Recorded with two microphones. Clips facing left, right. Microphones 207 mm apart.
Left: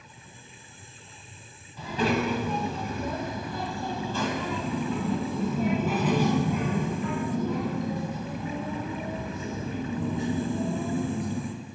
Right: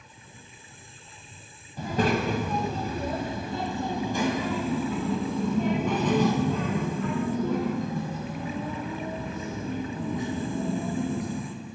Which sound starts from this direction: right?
A child speaking, at 1.8 s.